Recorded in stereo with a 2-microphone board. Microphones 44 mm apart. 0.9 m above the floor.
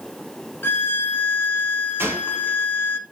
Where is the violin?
60° left (ahead or behind), 0.5 m.